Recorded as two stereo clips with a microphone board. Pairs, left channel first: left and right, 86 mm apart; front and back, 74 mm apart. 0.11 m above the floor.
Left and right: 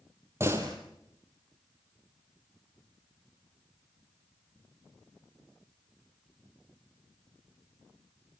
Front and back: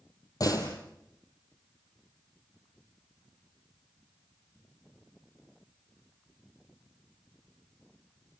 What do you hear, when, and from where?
0.4 s a door slam: 35° right, 3.5 m